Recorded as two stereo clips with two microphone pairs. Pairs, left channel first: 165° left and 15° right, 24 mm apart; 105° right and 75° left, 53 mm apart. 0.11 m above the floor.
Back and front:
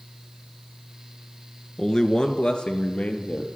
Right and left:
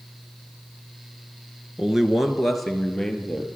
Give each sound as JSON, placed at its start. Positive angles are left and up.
{"t": 1.8, "sound": "a man speaking", "azimuth_deg": 125, "distance_m": 1.2}